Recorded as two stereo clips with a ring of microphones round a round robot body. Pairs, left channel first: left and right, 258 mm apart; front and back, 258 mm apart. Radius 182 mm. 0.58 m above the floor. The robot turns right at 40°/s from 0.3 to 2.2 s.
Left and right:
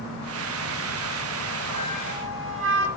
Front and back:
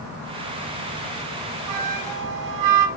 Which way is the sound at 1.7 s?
170° right.